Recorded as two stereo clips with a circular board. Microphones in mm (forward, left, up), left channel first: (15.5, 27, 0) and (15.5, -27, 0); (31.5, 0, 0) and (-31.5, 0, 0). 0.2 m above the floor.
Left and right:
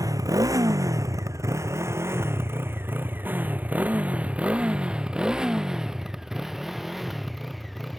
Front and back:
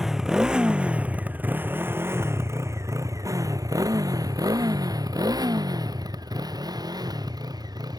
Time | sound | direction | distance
0.0 | a motorcycle | 95° right | ?